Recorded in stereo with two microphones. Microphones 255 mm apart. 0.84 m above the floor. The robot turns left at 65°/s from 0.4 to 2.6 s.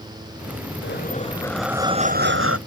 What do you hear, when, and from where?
0.8 s breathing: 50° left; by 2.6 s 65° right